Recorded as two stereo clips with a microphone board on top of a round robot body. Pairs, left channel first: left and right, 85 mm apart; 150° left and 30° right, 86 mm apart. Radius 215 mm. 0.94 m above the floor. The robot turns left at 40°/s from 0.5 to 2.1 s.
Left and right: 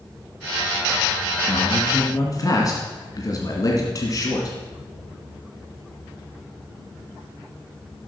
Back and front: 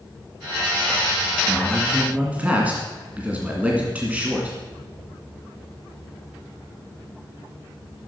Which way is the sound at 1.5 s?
70° left.